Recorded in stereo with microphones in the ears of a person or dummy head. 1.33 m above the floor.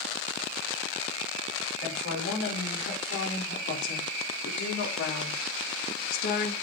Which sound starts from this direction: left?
A woman speaking, at 1.8 s.